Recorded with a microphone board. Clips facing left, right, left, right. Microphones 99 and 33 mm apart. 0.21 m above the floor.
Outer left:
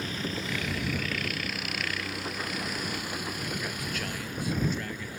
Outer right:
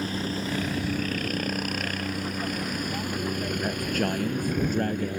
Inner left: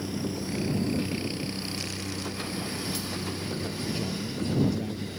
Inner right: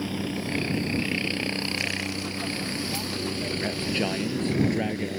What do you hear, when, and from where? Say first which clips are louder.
0.0 s a helicopter: outer right 4 dB, inner right 2 dB; 40° right (ahead or behind); by 5.2 s 60° right (ahead or behind)
3.6 s a man speaking: outer right 8 dB, inner right 5 dB; 50° right (ahead or behind)